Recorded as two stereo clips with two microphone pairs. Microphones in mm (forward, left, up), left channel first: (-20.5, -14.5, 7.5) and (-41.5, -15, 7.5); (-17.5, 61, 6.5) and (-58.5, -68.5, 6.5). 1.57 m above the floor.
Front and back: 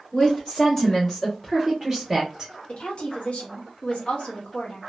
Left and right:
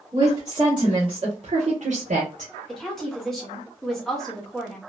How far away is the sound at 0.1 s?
About 1.3 m.